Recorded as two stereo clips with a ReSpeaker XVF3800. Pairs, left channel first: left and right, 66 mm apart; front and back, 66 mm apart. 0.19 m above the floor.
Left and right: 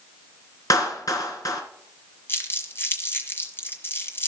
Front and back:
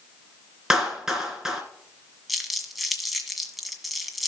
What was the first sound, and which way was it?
A clap, 100° left.